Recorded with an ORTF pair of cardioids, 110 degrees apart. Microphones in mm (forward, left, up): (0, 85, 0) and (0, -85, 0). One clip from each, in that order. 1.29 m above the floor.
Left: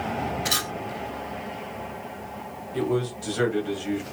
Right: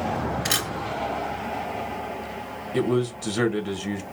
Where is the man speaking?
70° right, 1.5 m.